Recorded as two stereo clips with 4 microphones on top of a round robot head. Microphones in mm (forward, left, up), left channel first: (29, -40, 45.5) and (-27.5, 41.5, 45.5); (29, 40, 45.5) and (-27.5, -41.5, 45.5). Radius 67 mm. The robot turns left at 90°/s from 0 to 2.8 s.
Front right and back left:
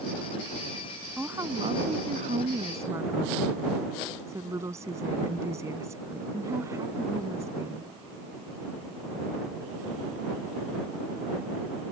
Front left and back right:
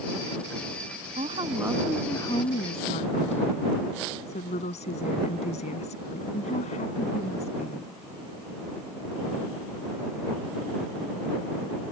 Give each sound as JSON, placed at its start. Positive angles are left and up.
{"t": 1.2, "sound": "a woman speaking", "azimuth_deg": -150}